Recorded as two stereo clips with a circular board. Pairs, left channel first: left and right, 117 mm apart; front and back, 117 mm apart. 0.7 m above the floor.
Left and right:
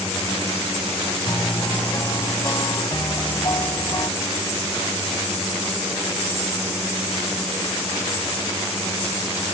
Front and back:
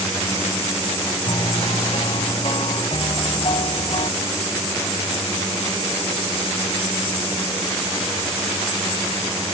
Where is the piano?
35° left.